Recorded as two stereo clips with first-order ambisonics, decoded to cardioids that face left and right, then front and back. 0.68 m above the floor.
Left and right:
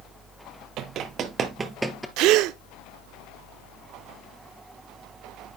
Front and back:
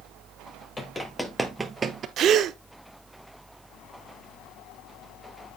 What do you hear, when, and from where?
0.8 s running footsteps: 70° right, 0.9 m; by 2.1 s 170° left, 0.7 m
2.2 s a gasp: 125° right, 0.5 m